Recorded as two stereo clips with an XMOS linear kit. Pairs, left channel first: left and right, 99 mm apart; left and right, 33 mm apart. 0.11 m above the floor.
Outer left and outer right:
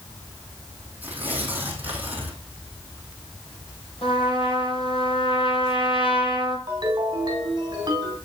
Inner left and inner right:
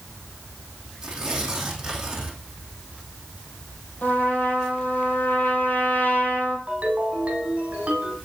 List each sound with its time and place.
1.0 s tearing paper: 15° right (ahead or behind), 3 m
4.0 s a trumpet: 60° left (ahead or behind), 3.5 m
6.7 s a ringtone: 40° right (ahead or behind), 3.5 m